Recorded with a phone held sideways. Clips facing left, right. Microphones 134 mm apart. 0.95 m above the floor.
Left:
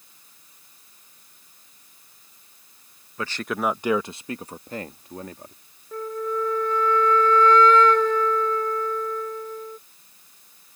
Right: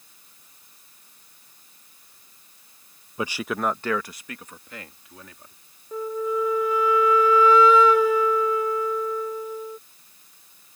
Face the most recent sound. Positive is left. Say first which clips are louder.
# right 2 dB
turn(degrees=-10)  # may be behind; listen again after turning